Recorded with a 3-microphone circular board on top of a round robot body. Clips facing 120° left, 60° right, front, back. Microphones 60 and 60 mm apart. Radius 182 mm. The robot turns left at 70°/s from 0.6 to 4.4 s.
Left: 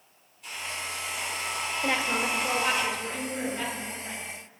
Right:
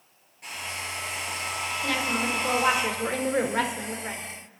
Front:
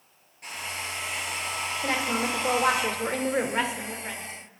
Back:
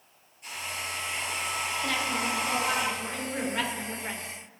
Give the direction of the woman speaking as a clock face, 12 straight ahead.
10 o'clock.